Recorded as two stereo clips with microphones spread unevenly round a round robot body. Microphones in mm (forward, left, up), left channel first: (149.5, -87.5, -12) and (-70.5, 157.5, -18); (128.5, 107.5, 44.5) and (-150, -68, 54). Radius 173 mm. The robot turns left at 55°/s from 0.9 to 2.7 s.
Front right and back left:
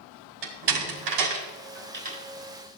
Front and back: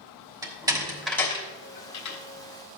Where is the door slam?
135° left, 3 m; by 2.2 s 65° left, 3 m.